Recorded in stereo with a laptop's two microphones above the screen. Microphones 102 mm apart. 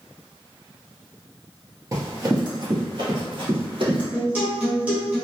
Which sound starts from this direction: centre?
A guitar, at 4.1 s.